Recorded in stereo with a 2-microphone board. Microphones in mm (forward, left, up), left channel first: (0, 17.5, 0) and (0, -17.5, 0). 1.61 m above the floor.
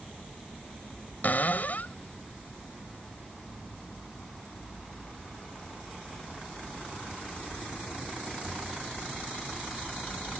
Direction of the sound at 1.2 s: 50° left (ahead or behind).